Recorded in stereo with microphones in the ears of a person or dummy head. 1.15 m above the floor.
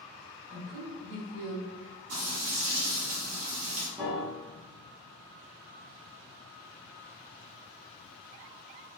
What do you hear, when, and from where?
0.5 s a woman speaking: 40° right (ahead or behind), 1.1 m
2.1 s frying: 80° right, 1.0 m
4.0 s a piano: 25° right (ahead or behind), 0.7 m